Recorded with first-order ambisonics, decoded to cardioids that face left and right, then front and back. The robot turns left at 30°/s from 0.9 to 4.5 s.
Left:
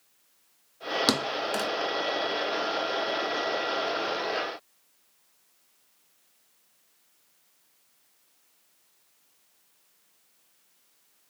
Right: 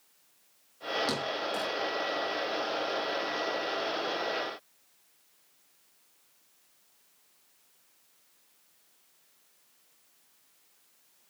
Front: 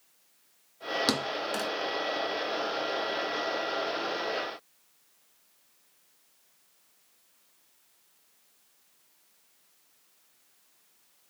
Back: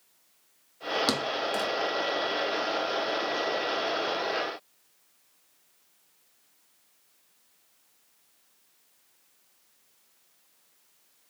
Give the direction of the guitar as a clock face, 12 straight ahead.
No guitar in this recording.